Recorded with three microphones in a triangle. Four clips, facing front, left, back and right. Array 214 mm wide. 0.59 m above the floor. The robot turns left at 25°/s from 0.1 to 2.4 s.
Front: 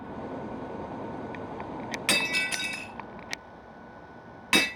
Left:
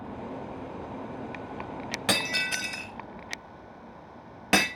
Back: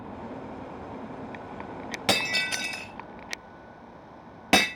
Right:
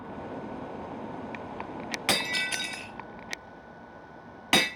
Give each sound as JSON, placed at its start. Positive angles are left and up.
{"t": 2.1, "sound": "breaking glass", "azimuth_deg": 180, "distance_m": 1.2}